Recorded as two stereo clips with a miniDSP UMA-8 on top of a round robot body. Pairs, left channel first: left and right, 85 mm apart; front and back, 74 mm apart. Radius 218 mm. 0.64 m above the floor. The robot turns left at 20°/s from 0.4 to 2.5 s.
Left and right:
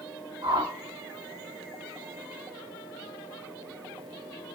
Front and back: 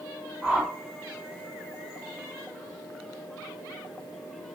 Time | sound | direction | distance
0.4 | a whoosh | 85° right | 2 m